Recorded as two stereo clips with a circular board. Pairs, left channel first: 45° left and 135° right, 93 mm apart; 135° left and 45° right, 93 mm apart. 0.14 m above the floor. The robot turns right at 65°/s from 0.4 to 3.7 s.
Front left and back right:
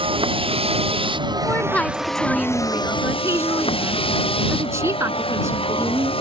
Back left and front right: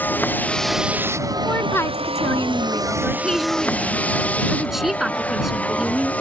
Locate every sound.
0.0 s a vehicle: 155° right; by 6.2 s 60° left
1.4 s a woman speaking: 85° left; by 6.1 s 130° right